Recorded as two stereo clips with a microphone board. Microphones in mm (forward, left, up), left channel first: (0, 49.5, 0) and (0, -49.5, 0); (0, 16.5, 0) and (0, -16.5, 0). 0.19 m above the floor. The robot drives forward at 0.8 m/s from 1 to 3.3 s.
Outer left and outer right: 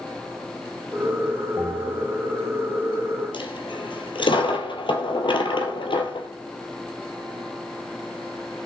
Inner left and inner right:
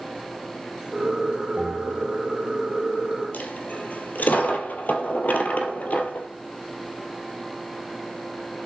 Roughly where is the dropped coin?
Left.